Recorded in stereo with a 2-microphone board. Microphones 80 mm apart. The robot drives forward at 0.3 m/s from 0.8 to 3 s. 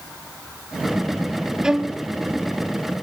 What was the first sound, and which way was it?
A violin, 5° right (ahead or behind).